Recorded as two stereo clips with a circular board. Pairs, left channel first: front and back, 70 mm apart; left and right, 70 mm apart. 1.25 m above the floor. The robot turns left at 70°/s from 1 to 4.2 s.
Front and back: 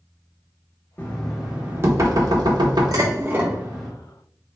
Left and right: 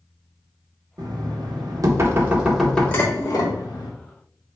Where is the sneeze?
No sneeze in this recording.